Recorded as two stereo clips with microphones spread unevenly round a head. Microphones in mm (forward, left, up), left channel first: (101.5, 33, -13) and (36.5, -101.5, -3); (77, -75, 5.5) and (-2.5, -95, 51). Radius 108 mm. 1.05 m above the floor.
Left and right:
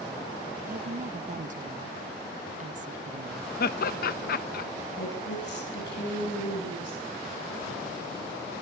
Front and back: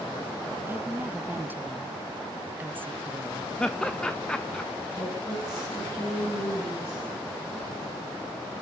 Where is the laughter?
80° left, 1.1 m.